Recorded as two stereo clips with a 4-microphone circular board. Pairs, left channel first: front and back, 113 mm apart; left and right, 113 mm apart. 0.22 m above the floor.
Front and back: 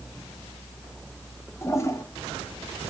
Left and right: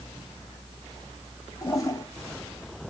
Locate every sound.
1.6 s a toilet flushing: 50° left, 1.1 m